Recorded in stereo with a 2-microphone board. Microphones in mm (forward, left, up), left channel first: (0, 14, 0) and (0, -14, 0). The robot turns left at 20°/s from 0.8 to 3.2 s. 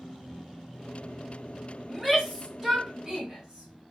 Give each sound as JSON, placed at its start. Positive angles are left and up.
{"t": 1.9, "sound": "a shout", "side_deg": -5, "distance_m": 3.0}